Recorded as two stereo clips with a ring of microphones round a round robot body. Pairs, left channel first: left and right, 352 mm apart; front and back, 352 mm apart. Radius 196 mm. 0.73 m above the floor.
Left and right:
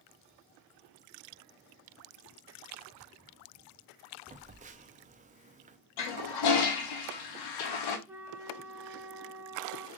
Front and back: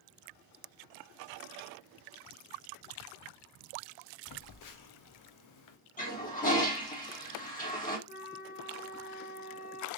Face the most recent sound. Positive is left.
turn(degrees=-10)